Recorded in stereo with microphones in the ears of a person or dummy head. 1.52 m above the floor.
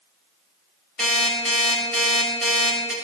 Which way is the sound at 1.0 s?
Centre (ahead or behind).